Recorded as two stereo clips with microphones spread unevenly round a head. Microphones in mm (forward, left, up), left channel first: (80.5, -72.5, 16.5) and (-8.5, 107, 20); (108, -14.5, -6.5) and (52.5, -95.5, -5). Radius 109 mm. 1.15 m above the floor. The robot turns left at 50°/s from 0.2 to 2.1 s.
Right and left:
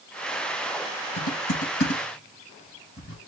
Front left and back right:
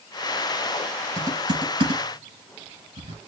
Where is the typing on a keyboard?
70° right, 4 m; by 3.2 s 120° right, 4 m.